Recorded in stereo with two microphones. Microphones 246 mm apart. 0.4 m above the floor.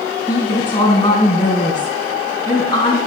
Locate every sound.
0.3 s a woman speaking: 25° left (ahead or behind), 3 m